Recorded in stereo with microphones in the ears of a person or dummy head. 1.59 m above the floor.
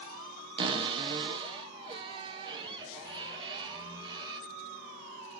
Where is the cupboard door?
20° right (ahead or behind), 1.0 m.